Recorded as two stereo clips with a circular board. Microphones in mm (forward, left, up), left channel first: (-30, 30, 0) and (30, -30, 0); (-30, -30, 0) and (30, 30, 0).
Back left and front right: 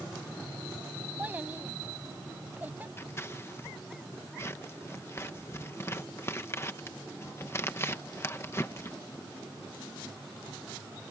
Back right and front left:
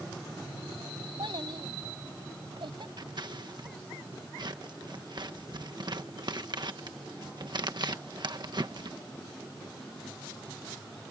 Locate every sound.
1.2 s a child speaking: 25° left
3.0 s scissors: 75° left